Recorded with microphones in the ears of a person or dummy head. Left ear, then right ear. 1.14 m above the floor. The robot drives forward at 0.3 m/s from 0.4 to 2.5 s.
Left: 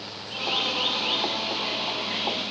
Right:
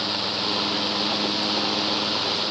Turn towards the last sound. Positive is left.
No sound to turn to.